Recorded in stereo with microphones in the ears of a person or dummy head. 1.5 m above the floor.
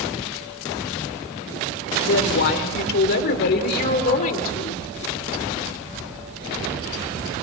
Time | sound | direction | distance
2.0 | a woman speaking | 75° left (ahead or behind) | 4.5 m